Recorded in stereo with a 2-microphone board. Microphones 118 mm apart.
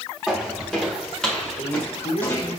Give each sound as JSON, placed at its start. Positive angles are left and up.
{"t": 0.3, "sound": "footsteps", "side_deg": 0, "distance_m": 5.0}
{"t": 1.6, "sound": "a man speaking", "side_deg": 70, "distance_m": 3.0}